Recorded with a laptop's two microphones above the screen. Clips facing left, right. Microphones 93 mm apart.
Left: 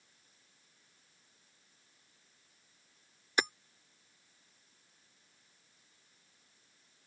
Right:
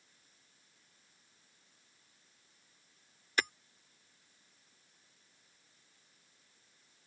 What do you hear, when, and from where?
3.4 s hammering: 20° left (ahead or behind)